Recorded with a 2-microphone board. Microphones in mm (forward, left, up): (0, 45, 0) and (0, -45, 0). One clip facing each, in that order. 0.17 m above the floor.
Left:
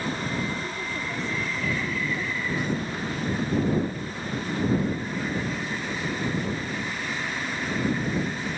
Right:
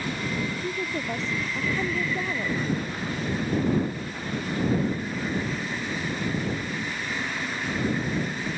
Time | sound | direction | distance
0.6 | a woman speaking | 25° right (ahead or behind) | ?